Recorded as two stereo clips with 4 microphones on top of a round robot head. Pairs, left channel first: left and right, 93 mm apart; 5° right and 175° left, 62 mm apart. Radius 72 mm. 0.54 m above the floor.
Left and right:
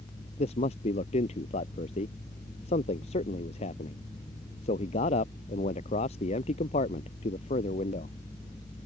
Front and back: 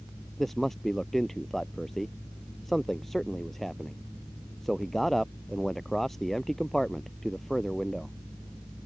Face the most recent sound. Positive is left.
turn(degrees=80)